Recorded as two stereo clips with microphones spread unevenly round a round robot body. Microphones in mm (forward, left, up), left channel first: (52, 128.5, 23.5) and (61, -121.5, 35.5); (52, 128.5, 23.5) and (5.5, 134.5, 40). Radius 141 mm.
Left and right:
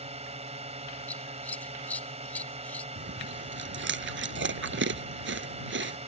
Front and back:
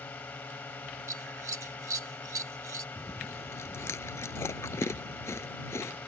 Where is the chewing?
45° right.